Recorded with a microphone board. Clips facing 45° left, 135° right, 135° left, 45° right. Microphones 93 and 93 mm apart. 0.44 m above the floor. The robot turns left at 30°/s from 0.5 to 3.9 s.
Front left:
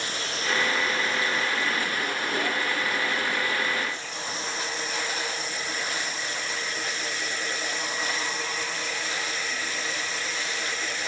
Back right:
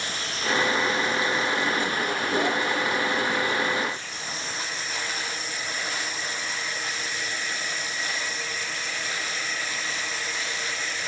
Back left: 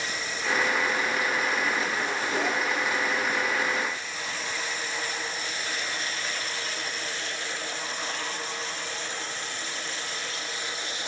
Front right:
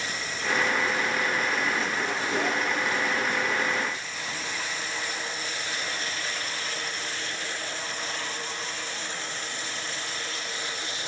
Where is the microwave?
I don't hear a microwave.